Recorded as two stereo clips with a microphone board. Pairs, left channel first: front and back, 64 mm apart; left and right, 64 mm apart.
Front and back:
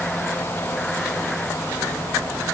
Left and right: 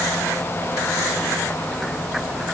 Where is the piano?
I don't hear a piano.